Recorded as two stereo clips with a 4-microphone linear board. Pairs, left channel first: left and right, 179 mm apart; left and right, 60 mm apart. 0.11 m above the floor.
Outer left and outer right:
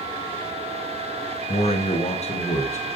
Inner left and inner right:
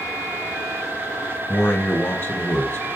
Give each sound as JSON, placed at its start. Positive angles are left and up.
{"t": 1.5, "sound": "a man speaking", "side_deg": 35, "distance_m": 1.7}